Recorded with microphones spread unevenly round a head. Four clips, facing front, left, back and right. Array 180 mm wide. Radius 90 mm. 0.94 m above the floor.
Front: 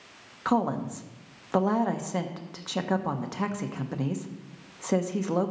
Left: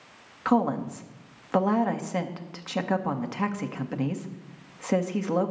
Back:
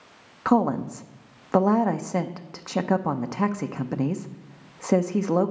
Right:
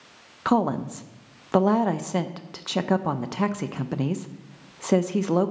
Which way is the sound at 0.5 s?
135° right.